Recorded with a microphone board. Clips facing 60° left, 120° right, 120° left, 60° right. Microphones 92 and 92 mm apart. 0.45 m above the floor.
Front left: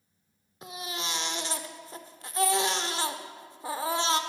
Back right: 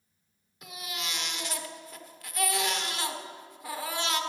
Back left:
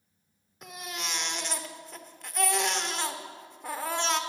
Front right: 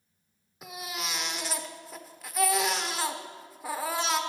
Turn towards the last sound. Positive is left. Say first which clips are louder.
# front left 3 dB, front right 1 dB
turn(degrees=25)